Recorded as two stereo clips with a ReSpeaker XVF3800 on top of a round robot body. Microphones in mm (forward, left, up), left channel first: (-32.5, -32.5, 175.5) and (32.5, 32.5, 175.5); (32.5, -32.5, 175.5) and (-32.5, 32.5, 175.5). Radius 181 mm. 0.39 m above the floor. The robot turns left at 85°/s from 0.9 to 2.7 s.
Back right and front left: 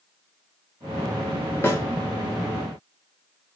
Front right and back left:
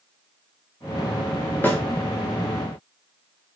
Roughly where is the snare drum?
Right.